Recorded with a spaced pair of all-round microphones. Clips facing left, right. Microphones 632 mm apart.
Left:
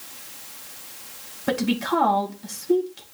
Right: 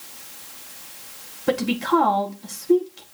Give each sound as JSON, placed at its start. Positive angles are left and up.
{"t": 1.5, "sound": "a woman speaking", "side_deg": 5, "distance_m": 1.7}